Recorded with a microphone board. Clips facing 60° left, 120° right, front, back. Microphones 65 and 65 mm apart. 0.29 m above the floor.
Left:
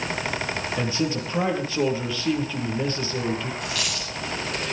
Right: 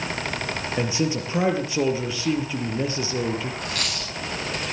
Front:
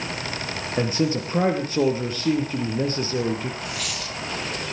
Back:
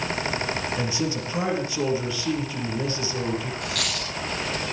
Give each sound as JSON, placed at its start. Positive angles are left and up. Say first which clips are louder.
{"t": 0.8, "sound": "a man speaking", "louder": "right 2 dB, front 4 dB", "azimuth_deg": -45, "distance_m": 5.0}
{"t": 3.6, "sound": "a dropped coin", "louder": "even, back 2 dB", "azimuth_deg": -160, "distance_m": 10.0}